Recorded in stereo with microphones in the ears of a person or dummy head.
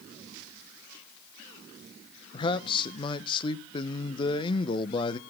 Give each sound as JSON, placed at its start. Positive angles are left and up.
{"t": 2.3, "sound": "a man speaking", "side_deg": 30, "distance_m": 0.7}